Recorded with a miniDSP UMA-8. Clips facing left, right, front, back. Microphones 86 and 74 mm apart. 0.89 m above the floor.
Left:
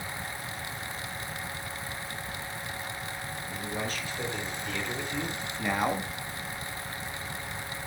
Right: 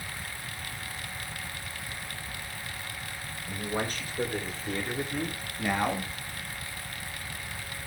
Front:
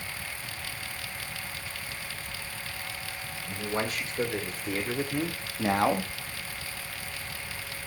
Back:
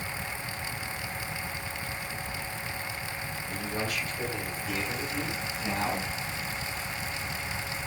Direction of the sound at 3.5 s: 50° right.